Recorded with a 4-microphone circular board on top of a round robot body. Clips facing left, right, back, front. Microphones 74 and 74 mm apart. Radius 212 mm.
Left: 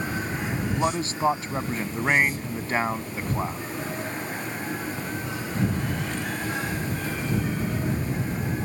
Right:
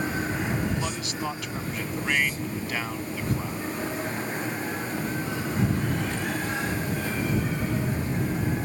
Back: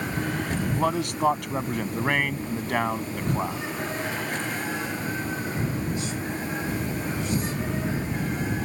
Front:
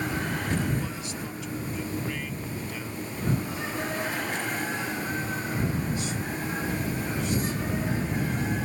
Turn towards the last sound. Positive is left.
turn(degrees=150)